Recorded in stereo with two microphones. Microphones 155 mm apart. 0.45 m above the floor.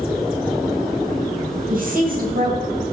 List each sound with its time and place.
1.7 s a woman speaking: 60° right (ahead or behind), 3 m